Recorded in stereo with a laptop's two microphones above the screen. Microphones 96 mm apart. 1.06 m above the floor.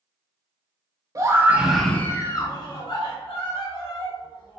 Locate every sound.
1.1 s a scream: 35° right (ahead or behind), 0.6 m; by 4.6 s 70° left (ahead or behind), 1.6 m